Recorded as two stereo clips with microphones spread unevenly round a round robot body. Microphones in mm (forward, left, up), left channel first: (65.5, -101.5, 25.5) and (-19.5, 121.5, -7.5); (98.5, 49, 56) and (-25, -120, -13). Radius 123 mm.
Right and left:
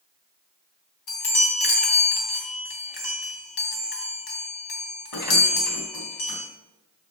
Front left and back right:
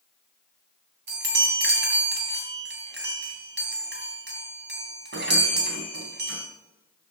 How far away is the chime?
About 3 m.